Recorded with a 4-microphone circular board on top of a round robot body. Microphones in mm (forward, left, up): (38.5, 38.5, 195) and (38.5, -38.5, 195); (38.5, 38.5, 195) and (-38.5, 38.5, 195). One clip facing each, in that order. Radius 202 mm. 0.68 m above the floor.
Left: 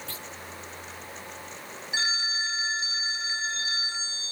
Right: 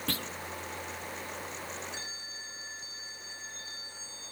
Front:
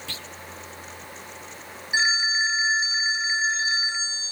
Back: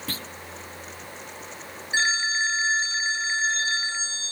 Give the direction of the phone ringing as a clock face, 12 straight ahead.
9 o'clock.